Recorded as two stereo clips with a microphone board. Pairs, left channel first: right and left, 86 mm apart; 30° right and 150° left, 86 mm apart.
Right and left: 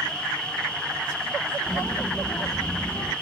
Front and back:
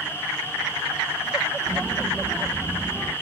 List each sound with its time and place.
1.7 s a child speaking: 135° right, 0.6 m; by 3.1 s 145° right, 1.7 m